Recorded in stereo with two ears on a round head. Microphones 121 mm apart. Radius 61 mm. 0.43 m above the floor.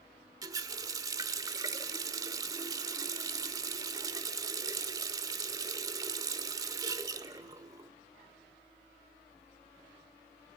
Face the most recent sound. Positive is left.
turn(degrees=-30)  # may be behind; listen again after turning